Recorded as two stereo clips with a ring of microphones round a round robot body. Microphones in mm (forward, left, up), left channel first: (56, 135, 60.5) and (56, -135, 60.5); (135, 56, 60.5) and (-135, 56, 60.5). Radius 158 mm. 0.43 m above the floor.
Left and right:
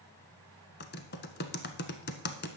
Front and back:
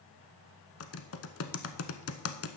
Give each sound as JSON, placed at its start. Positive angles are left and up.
{"t": 0.8, "sound": "typing on a keyboard", "azimuth_deg": 35, "distance_m": 0.9}